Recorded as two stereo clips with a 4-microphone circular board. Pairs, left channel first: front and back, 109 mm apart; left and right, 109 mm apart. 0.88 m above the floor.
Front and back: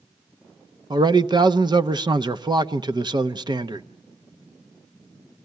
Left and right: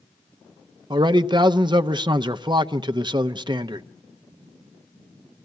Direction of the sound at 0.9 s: 135° right.